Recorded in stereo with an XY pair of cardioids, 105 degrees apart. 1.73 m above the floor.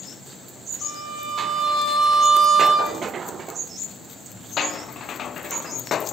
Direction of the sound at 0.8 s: 55° right.